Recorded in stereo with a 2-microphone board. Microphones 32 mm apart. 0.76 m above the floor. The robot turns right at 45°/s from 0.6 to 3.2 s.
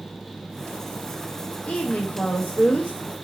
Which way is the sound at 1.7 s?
35° left (ahead or behind).